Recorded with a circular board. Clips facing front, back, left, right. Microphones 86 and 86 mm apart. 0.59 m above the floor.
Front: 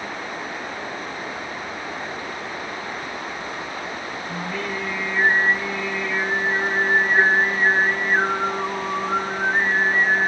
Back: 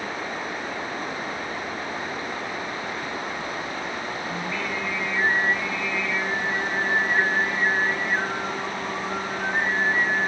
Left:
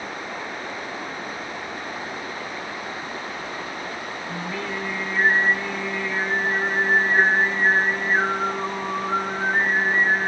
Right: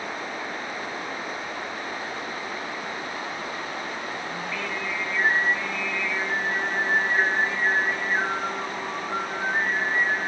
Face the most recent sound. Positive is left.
turn(degrees=45)